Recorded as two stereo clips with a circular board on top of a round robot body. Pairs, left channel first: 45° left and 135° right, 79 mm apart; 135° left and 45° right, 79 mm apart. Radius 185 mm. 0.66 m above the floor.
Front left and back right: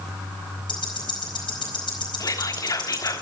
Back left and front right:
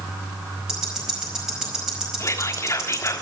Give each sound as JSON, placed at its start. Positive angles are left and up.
{"t": 0.7, "sound": "ticking", "azimuth_deg": 35, "distance_m": 4.5}
{"t": 2.2, "sound": "whispering", "azimuth_deg": 85, "distance_m": 2.0}